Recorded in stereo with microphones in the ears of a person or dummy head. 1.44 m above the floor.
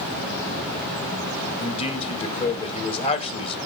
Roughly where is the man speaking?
Left.